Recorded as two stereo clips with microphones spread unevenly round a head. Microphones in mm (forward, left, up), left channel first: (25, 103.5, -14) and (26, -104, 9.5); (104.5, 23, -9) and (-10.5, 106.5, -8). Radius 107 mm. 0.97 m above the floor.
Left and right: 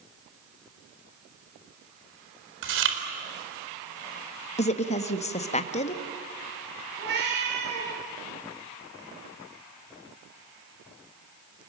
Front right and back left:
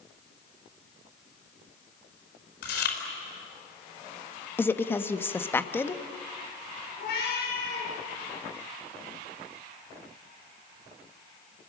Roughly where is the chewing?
Ahead right.